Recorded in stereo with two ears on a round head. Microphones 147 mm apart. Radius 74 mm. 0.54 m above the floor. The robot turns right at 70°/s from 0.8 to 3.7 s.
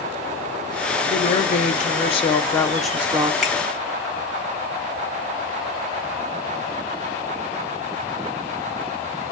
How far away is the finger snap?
About 1.7 m.